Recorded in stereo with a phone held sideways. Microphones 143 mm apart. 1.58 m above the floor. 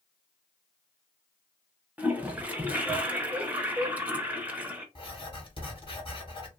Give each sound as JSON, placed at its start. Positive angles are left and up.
{"t": 2.0, "sound": "a toilet flushing", "side_deg": -10, "distance_m": 0.6}
{"t": 5.0, "sound": "writing", "side_deg": 35, "distance_m": 1.5}